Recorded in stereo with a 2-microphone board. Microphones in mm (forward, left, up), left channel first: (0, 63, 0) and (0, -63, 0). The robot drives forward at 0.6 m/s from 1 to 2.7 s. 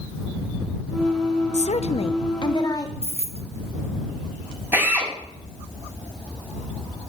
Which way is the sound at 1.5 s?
65° left (ahead or behind).